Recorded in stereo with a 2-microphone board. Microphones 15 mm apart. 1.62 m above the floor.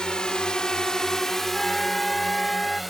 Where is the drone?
80° left; by 2.9 s centre (ahead or behind).